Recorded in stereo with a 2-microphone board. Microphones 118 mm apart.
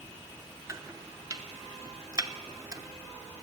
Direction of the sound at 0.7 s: 25° right (ahead or behind).